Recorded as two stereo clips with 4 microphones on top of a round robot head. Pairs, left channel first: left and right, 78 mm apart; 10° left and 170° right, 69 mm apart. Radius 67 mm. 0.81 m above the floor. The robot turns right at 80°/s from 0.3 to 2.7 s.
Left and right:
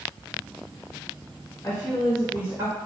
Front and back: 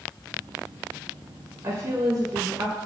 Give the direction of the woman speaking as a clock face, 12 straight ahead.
7 o'clock.